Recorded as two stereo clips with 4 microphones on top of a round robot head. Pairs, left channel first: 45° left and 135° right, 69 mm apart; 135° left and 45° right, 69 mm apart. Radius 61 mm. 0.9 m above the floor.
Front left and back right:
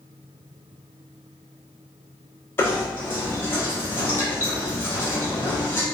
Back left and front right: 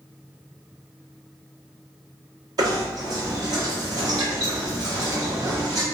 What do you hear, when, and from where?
2.6 s knocking: 10° right, 1.2 m